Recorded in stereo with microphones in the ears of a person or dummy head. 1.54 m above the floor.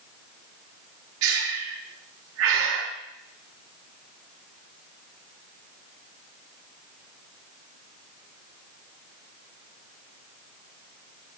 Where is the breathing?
70° right (ahead or behind), 0.8 m.